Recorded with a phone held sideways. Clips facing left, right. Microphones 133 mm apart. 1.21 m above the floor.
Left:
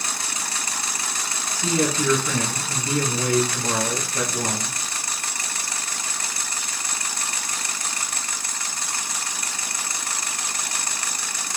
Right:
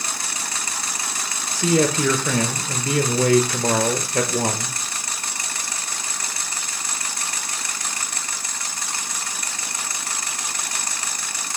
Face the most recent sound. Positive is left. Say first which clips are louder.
# right 4 dB
turn(degrees=-85)